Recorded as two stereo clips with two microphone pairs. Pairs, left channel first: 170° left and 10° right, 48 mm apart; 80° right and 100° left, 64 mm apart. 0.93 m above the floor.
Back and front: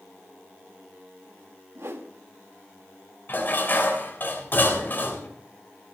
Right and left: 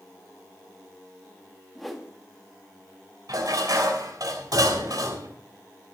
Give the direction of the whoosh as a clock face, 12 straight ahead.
12 o'clock.